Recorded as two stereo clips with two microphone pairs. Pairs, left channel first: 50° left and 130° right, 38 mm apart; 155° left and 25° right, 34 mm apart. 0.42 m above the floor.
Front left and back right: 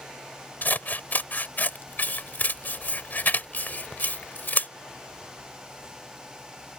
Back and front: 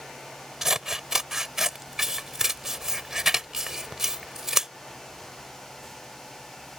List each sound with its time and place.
0.6 s scissors: 45° left